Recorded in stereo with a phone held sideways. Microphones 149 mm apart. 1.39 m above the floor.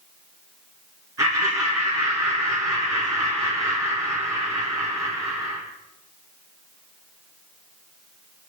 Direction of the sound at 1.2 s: 20° right (ahead or behind).